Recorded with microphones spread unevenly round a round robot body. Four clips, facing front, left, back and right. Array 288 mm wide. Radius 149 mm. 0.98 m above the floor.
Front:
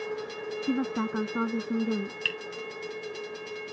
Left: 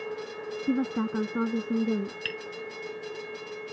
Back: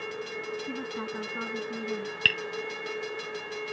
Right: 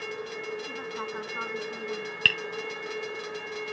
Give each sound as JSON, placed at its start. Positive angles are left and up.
{"t": 0.7, "sound": "a woman speaking", "azimuth_deg": 55}
{"t": 2.2, "sound": "tapping", "azimuth_deg": -130}